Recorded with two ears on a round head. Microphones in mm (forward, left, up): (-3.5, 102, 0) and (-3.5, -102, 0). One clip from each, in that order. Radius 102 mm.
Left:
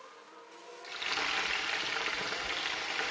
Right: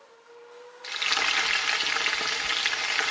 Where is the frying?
55° right (ahead or behind), 2.5 m.